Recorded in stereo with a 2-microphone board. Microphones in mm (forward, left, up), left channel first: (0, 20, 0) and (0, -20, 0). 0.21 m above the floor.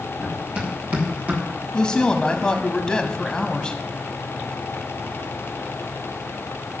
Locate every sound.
0.2 s running footsteps: 30° right (ahead or behind), 3.5 m; by 1.4 s 35° right (ahead or behind), 3 m
1.7 s a woman speaking: 20° left (ahead or behind), 1.1 m